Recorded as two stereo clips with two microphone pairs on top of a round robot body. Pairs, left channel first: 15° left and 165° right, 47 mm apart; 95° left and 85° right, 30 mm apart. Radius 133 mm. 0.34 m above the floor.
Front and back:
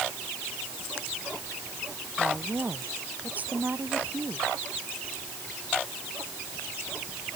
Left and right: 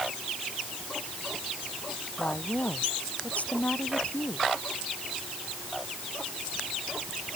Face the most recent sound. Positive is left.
turn(degrees=140)